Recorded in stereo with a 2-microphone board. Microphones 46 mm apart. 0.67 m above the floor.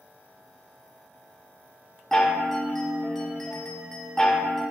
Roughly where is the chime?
Centre.